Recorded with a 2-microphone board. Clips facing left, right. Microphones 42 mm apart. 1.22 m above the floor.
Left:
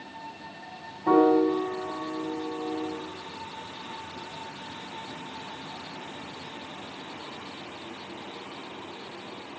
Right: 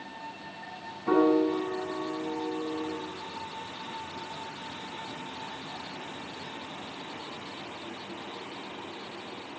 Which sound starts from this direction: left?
A piano, at 1.1 s.